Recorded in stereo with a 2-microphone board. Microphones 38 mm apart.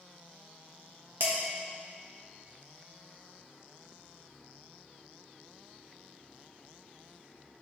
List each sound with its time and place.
1.2 s dishes clattering: 65° right (ahead or behind), 1.5 m